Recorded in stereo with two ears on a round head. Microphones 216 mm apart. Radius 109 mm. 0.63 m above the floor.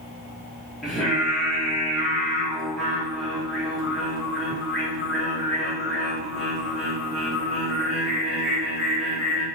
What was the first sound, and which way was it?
Singing, centre (ahead or behind).